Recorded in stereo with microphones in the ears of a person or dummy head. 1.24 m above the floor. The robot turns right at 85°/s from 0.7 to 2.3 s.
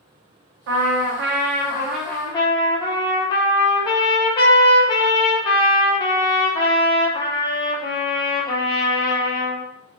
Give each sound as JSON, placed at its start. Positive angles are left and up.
{"t": 0.7, "sound": "a trumpet", "azimuth_deg": -110, "distance_m": 0.5}